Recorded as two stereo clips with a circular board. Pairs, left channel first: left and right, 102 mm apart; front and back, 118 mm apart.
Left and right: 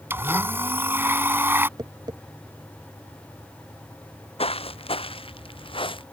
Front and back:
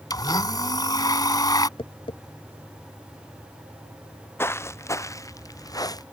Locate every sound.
0.1 s a blender: 35° right
1.8 s tapping: 40° right
4.4 s footsteps: 70° left; by 6.0 s 55° left